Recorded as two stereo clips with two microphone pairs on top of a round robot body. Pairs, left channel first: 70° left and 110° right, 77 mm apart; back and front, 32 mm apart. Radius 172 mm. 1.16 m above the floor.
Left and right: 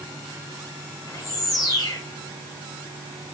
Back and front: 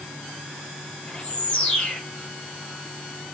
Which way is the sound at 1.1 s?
115° left.